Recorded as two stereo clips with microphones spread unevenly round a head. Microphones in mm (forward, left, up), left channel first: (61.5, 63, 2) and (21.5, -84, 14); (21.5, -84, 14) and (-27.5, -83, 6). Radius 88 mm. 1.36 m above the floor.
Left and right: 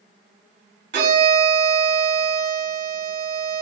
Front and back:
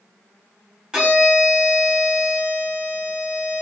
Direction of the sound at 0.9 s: 110° right.